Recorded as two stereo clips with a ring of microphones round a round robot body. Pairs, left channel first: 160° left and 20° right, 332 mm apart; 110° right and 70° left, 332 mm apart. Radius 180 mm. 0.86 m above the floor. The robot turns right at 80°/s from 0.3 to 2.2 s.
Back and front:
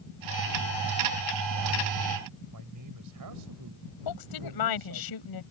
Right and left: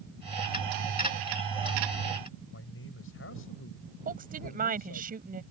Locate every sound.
2.5 s a man speaking: 60° right
4.0 s a woman speaking: 135° left